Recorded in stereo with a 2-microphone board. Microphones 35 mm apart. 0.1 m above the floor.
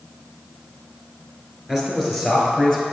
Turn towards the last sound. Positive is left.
turn(degrees=-5)  # may be behind; listen again after turning